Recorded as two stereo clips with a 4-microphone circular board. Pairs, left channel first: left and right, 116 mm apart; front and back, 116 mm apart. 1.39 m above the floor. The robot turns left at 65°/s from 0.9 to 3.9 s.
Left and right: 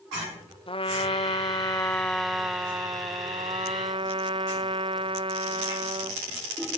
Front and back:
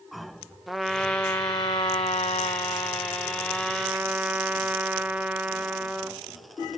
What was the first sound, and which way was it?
A trumpet, 90° left.